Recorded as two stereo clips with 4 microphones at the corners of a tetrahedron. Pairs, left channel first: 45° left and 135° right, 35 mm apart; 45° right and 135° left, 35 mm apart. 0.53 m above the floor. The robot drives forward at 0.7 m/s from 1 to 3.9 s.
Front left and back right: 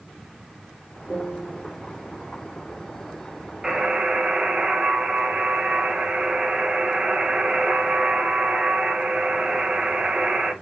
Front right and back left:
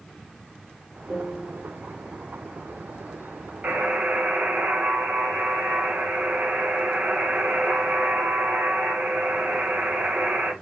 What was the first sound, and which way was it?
A piano, 125° left.